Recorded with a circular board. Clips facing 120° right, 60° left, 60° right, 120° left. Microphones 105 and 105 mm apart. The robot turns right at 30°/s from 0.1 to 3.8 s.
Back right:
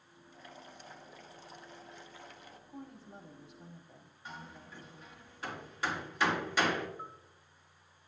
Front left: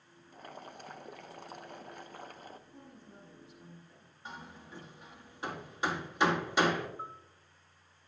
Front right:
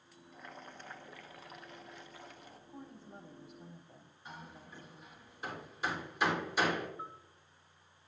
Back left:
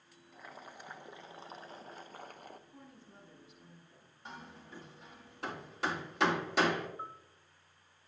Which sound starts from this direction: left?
A bell, at 7.0 s.